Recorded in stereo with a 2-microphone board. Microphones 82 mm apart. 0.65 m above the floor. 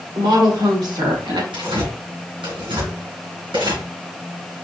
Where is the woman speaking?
60° right (ahead or behind), 1.5 m; by 1.4 s 65° right (ahead or behind), 1.9 m.